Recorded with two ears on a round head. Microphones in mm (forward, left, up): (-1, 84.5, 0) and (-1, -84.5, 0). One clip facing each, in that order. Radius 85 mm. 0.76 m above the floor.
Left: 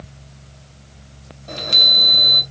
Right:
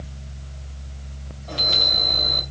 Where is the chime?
25° left (ahead or behind), 2.5 m.